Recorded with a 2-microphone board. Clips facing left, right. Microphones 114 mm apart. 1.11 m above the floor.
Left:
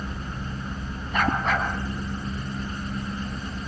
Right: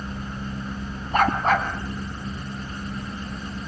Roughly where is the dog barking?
Right.